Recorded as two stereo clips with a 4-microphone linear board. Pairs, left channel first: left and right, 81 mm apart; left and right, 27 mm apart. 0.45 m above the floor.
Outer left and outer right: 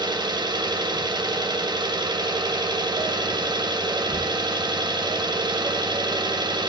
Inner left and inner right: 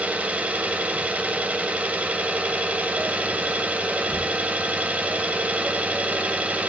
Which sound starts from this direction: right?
An engine running, at 0.0 s.